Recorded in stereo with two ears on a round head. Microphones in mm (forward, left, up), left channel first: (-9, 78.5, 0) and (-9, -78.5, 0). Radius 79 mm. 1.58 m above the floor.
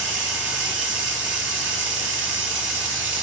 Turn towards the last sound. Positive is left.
turn(degrees=-75)  # may be behind; listen again after turning